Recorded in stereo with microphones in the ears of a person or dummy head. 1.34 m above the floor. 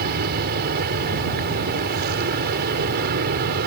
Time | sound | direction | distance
0.0 | an aircraft | 55° right (ahead or behind) | ?